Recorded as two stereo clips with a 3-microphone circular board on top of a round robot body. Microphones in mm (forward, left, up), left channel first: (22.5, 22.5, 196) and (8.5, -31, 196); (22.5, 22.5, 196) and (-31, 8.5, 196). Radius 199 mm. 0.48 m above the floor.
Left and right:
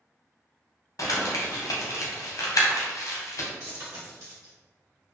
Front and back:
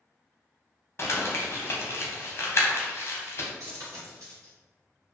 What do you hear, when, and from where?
1.0 s crumpling: 60° left, 0.5 m
3.6 s a dropped coin: 140° right, 1.1 m